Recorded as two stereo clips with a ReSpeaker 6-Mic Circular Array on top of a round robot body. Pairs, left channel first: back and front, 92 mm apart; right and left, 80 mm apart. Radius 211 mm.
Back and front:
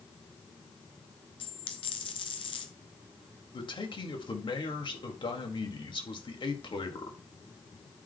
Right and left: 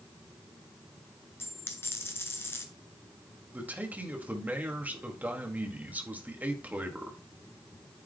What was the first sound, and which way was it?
A dropped coin, 150° right.